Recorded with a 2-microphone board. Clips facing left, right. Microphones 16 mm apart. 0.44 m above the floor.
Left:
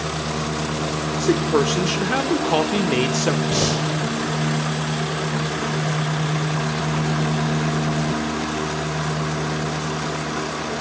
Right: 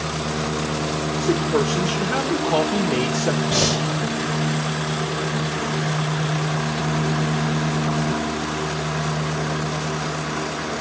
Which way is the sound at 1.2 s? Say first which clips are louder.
Left 2 dB; 25° left (ahead or behind).